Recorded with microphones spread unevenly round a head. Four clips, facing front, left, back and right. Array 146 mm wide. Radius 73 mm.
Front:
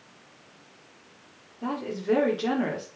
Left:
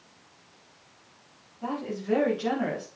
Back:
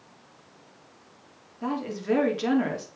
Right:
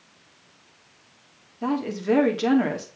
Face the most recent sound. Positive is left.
turn(degrees=-100)